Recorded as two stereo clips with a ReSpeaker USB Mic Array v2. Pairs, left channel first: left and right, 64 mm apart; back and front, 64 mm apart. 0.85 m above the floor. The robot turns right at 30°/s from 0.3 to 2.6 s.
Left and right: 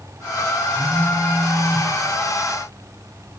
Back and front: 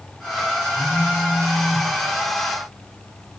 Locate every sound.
0.7 s a phone buzzing: 115° right, 7 m; by 1.9 s 80° right, 7 m